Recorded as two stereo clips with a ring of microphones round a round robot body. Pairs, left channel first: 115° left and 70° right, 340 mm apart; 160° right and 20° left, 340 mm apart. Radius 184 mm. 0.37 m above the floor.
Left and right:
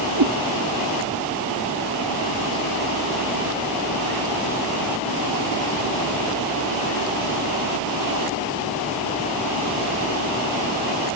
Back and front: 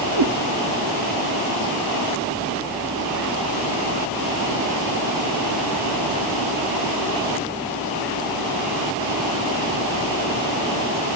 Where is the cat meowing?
15° right, 1.4 m.